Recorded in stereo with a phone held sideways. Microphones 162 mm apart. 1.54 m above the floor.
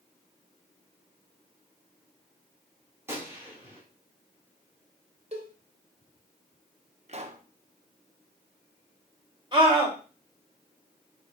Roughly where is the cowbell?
Right.